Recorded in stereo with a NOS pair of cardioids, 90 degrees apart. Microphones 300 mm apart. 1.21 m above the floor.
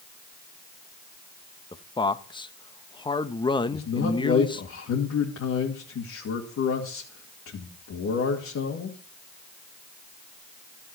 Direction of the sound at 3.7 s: 55° left.